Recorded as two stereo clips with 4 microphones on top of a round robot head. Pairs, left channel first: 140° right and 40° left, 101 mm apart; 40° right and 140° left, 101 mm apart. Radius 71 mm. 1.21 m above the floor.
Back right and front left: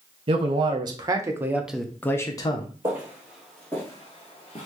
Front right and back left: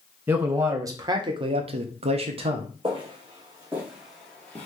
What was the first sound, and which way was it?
A man speaking, 75° left.